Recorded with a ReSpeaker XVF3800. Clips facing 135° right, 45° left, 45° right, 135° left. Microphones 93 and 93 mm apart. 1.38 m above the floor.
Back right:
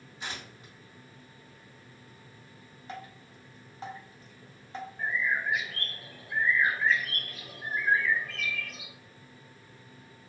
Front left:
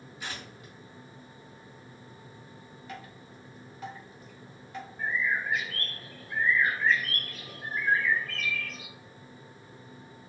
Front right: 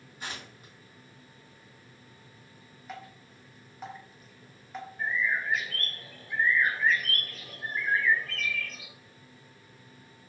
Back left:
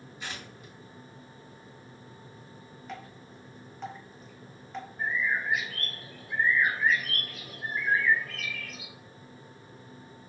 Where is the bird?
175° right, 0.8 m.